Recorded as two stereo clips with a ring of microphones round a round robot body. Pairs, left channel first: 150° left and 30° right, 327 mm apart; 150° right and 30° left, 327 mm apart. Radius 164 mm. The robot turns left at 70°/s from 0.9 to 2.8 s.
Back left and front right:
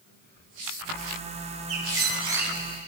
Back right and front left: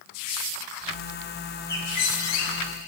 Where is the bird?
65° right, 3 m; by 2.6 s 130° right, 3 m.